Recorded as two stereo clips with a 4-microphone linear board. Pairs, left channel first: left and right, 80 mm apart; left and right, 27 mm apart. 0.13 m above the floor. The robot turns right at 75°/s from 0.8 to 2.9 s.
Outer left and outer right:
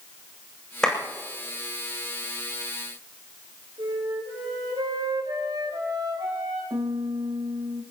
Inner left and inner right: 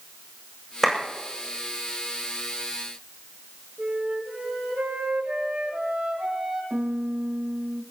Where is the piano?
65° right (ahead or behind), 1.6 m.